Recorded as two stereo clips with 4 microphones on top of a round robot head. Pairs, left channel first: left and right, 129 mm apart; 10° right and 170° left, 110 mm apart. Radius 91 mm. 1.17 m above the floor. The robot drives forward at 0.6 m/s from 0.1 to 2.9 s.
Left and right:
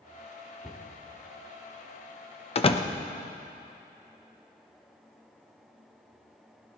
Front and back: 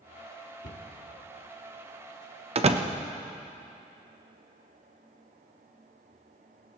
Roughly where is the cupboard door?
Ahead.